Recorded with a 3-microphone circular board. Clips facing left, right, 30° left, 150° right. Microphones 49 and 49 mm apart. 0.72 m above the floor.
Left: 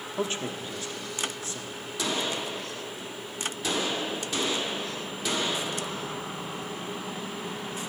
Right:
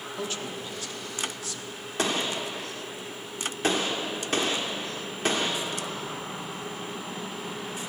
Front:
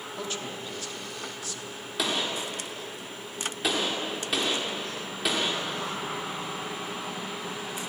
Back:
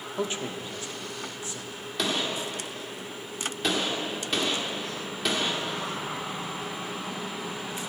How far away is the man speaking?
About 1.2 m.